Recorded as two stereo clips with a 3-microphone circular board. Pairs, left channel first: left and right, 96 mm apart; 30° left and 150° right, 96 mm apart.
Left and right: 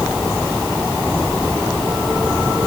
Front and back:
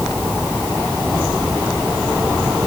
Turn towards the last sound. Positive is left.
No sound to turn to.